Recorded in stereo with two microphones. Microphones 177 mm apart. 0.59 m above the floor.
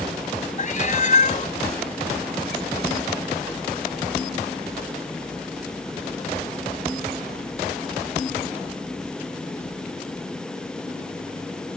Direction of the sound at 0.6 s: 45° left (ahead or behind).